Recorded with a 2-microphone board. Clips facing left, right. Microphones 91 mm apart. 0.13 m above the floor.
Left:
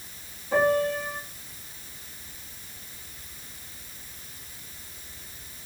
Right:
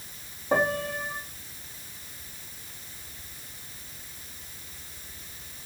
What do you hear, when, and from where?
0.5 s a piano: 80° right, 4 m